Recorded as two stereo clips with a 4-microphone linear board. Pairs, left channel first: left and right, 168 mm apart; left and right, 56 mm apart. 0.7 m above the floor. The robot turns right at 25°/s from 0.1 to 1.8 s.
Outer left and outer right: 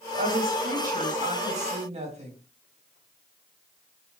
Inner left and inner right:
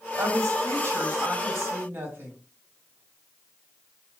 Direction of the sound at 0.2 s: 90° right.